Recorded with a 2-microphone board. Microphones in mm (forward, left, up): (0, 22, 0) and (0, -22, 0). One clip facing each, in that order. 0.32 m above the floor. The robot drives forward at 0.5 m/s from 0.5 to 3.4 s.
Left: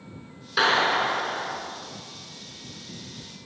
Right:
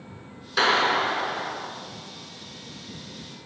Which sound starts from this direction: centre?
A clap, at 0.6 s.